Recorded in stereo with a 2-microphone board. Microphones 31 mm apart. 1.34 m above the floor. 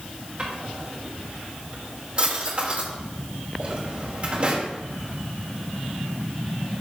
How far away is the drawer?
About 2.5 m.